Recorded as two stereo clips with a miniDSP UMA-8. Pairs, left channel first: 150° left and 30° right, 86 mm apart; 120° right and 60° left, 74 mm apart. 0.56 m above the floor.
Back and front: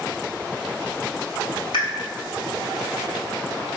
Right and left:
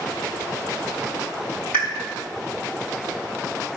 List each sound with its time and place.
1.7 s a pop: 170° left, 6 m